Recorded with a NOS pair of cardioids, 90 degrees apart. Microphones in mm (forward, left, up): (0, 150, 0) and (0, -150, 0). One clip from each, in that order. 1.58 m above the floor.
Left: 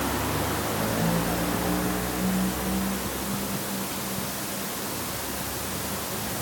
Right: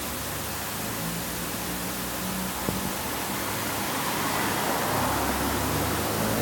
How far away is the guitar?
I don't hear a guitar.